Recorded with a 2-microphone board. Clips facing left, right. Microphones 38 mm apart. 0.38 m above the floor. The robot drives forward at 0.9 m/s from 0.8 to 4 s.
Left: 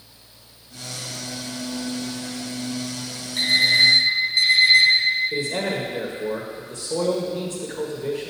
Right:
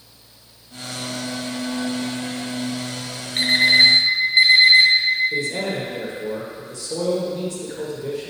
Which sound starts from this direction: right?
An alarm clock, at 3.4 s.